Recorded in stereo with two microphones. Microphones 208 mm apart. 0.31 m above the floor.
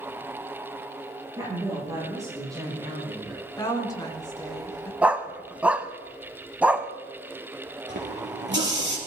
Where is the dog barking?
5° right (ahead or behind), 1.0 m.